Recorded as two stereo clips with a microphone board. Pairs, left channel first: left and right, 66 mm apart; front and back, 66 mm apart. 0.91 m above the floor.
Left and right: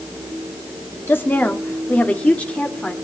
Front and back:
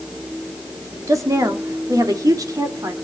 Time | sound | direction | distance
1.1 | a woman speaking | 145° left | 1.8 m